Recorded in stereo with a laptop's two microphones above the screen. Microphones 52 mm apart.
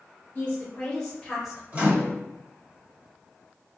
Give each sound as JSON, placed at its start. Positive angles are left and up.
{"t": 0.3, "sound": "a woman speaking", "side_deg": 40, "distance_m": 0.9}
{"t": 1.7, "sound": "a microwave", "side_deg": -30, "distance_m": 1.3}